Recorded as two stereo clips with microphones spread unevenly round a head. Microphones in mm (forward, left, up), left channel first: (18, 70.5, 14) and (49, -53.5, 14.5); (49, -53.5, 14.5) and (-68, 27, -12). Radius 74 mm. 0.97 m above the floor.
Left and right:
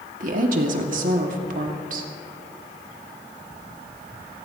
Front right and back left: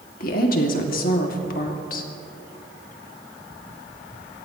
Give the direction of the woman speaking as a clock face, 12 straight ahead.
2 o'clock.